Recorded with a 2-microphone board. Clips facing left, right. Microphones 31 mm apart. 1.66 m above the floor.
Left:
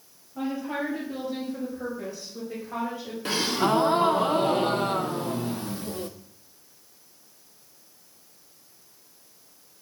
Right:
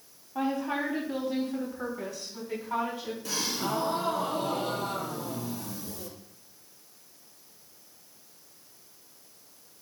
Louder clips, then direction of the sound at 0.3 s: Even; 80° right.